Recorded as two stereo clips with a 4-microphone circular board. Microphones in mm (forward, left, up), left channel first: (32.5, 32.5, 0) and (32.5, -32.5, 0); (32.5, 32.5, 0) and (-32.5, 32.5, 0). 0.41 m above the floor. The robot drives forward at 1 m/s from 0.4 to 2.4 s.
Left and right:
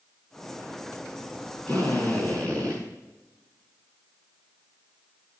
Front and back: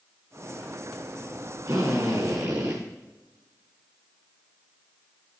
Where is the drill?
160° left, 5 m.